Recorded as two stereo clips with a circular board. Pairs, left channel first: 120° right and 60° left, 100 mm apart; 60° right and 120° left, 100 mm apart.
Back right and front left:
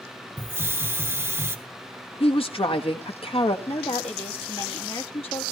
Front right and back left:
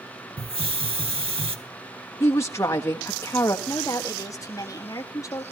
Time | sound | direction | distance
0.4 | a hiss | 125° left | 1.0 m
2.2 | a woman speaking | 120° right | 1.4 m
3.7 | a woman speaking | 115° right | 1.7 m